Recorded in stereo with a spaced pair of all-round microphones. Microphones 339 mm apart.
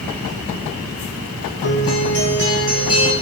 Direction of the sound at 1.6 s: 40° left (ahead or behind).